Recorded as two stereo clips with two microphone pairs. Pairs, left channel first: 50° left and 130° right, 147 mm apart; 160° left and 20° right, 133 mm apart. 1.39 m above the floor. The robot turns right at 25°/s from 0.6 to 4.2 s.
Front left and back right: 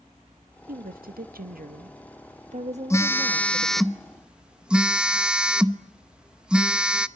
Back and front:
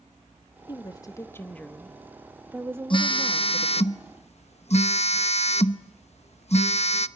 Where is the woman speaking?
145° right, 1.6 m; by 3.9 s 65° right, 1.6 m.